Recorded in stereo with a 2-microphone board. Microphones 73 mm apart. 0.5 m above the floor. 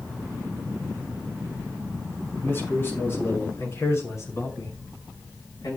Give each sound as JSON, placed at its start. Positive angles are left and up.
{"t": 2.4, "sound": "a man speaking", "side_deg": 30, "distance_m": 6.0}